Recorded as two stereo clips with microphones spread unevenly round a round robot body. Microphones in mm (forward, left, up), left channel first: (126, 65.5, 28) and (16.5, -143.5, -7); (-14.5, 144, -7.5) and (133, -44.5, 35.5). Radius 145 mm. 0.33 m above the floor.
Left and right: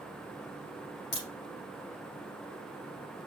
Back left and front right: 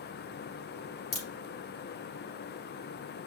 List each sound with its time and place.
1.1 s a crack: 75° left, 2 m